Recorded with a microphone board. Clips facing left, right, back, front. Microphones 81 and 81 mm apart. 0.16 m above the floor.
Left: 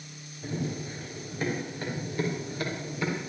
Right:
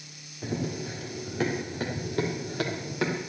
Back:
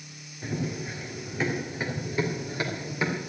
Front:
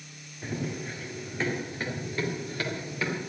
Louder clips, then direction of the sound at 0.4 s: Right 2 dB, back 2 dB; 85° right.